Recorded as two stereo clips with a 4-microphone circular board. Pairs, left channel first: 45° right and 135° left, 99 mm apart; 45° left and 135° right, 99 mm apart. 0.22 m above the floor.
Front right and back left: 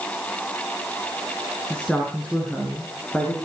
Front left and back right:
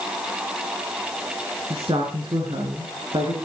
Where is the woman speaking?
125° right, 3 m; by 3.4 s 115° right, 4 m.